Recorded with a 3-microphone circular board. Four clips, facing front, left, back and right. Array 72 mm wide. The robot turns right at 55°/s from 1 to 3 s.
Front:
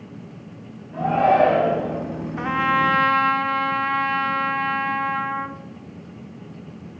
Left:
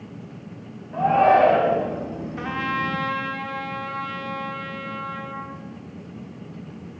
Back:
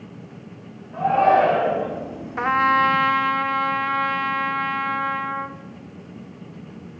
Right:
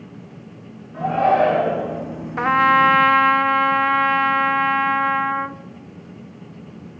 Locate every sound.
0.9 s a shout: 95° left, 5.5 m; by 1.9 s 140° left, 5.5 m
2.4 s a trumpet: 120° right, 0.5 m; by 5.6 s 90° right, 0.5 m